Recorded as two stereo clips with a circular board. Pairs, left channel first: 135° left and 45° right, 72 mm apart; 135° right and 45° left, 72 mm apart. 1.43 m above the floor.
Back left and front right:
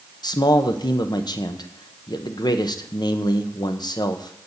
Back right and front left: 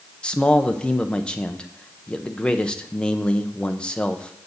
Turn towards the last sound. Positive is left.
turn(degrees=150)